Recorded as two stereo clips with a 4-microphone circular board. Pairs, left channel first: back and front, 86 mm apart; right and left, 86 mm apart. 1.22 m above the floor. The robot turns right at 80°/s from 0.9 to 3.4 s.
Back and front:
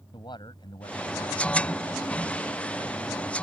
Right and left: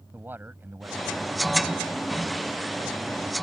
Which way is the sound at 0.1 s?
155° left.